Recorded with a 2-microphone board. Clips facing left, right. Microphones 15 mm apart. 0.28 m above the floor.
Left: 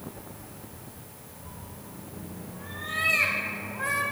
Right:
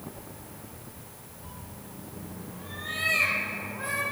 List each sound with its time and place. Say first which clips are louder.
1.4 s a cat meowing: even; 55° right (ahead or behind), 0.8 m; by 4.0 s centre (ahead or behind), 3 m